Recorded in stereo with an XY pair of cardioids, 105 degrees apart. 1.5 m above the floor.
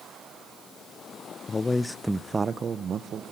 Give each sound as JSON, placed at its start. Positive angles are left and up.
{"t": 1.5, "sound": "a man speaking", "azimuth_deg": 35, "distance_m": 0.8}